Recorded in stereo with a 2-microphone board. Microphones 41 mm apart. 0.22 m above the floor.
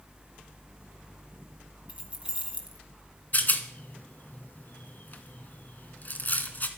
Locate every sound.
1.9 s keys jangling: 30° right (ahead or behind), 1.7 m
3.3 s a rattle: 45° left (ahead or behind), 1.4 m